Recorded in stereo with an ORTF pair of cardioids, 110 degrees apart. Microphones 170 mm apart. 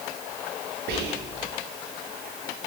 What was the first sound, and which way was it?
Whispering, 70° right.